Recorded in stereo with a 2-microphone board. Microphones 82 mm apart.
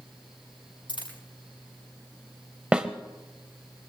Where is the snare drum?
15° right (ahead or behind), 1.2 m.